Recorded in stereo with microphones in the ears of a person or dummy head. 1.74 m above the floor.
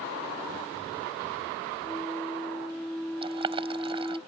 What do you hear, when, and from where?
1.8 s a flute: 5° left (ahead or behind)
3.2 s boiling: 30° right (ahead or behind)